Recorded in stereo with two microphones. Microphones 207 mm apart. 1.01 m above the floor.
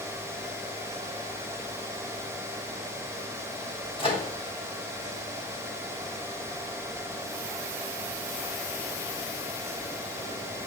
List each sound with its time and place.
4.0 s a microwave: 25° left (ahead or behind), 0.8 m